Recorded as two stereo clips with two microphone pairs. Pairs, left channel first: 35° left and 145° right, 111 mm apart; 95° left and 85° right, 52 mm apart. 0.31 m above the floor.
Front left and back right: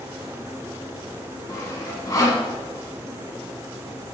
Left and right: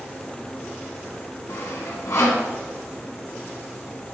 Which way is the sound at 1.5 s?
90° left.